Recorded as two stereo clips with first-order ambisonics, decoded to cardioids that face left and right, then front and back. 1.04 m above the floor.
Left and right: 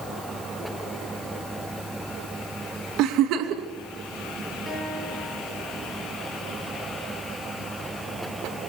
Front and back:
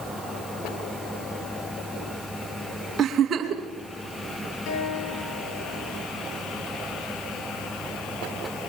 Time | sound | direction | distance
3.0 | a giggle | 120° right | 2.5 m
4.7 | a guitar | 5° right | 9 m